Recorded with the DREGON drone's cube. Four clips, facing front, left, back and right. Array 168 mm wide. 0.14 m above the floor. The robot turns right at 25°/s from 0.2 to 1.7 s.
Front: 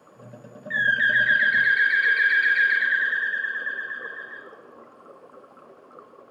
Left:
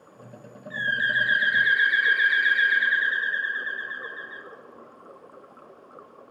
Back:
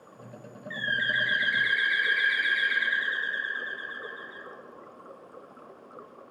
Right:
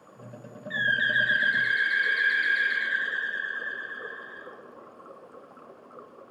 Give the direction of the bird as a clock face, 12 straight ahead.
12 o'clock.